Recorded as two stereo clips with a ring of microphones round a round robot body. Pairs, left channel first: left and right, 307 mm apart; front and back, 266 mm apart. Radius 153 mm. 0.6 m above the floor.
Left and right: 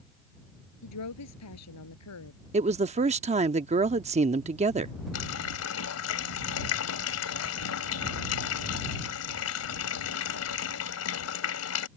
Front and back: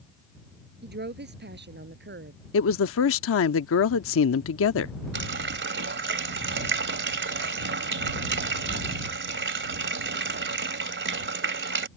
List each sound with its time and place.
0.8 s a woman speaking: 130° left
2.5 s a woman speaking: 25° right
5.1 s a running tap: 135° left